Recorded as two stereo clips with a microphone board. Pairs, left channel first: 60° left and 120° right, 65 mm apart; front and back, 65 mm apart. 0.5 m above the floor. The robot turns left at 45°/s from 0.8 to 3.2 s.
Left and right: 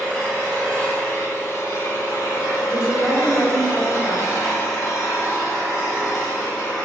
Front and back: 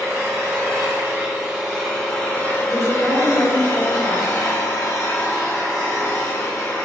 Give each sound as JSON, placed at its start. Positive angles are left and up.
{"t": 0.0, "sound": "an engine running", "azimuth_deg": 140, "distance_m": 0.8}
{"t": 2.7, "sound": "a woman speaking", "azimuth_deg": -80, "distance_m": 1.1}